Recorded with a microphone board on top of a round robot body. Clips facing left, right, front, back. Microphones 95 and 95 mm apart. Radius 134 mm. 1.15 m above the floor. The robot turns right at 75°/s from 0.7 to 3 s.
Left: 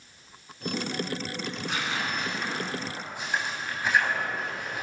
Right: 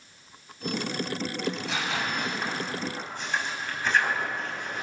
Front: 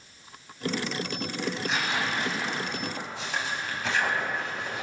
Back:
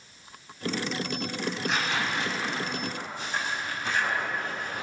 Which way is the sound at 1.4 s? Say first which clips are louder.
Right 2 dB, even; 110° right.